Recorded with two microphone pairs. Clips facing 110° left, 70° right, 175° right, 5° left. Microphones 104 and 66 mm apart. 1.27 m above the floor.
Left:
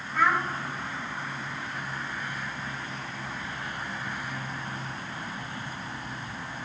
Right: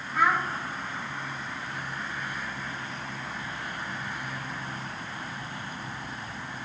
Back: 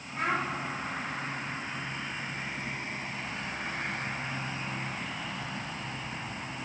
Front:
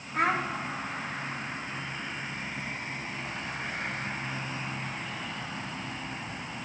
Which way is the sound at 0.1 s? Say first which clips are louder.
Even, front 3 dB; 15° left.